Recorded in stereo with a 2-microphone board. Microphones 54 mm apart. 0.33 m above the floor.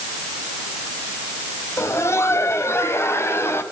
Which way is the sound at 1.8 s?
50° left (ahead or behind).